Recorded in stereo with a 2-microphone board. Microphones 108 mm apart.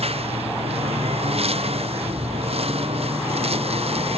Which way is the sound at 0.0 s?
65° right (ahead or behind).